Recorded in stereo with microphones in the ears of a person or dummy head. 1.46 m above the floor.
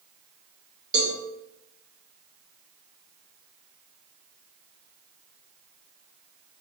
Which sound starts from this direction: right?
A cowbell, at 0.9 s.